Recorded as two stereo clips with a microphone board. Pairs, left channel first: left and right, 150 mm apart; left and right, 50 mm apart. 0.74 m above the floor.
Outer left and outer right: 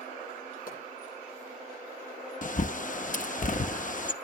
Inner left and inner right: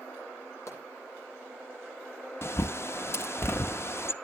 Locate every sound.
0.7 s a pop: 70° left (ahead or behind), 8.5 m
2.4 s a bird: 60° left (ahead or behind), 0.6 m